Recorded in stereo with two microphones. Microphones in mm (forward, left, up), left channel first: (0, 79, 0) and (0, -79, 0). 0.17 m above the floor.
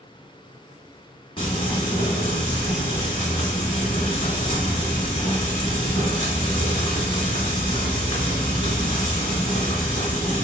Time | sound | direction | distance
1.4 | frying | 35° left (ahead or behind) | 1.7 m